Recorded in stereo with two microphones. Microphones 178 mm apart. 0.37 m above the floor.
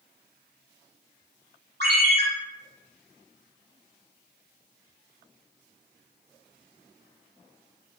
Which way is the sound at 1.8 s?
65° right (ahead or behind).